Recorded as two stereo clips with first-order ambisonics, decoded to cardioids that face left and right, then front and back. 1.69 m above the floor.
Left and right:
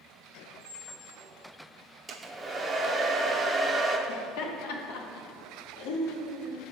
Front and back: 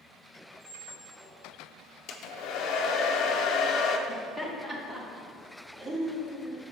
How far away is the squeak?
About 1.3 m.